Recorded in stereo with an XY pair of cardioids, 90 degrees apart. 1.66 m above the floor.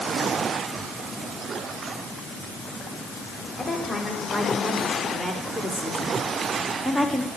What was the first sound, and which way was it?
A woman speaking, 10° right.